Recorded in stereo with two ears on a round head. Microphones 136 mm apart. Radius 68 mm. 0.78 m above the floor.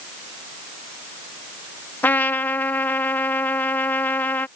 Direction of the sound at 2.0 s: 15° left (ahead or behind).